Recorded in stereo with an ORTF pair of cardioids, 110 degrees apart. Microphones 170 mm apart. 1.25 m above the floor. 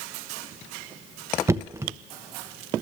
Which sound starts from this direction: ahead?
Knocking, at 1.5 s.